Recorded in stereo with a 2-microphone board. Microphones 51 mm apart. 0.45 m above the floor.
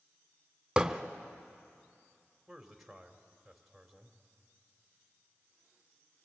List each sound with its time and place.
0.8 s hammering: 15° right (ahead or behind), 1.1 m
2.5 s a man speaking: 5° right (ahead or behind), 2 m